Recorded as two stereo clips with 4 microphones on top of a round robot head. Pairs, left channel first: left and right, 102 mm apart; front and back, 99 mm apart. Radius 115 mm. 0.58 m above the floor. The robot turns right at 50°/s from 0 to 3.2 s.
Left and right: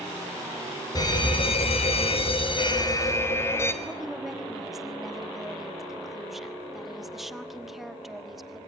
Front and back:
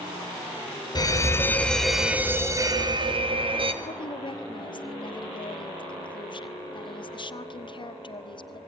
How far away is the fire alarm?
About 4 m.